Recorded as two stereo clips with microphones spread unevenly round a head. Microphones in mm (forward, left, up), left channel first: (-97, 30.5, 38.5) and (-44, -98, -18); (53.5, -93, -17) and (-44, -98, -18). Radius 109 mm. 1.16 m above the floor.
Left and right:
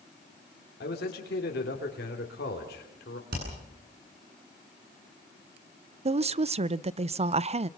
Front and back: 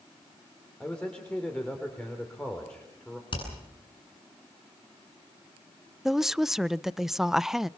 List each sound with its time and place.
0.8 s a man speaking: 90° left, 3.5 m
3.3 s hammering: 30° right, 9.5 m
6.0 s a woman speaking: 90° right, 0.6 m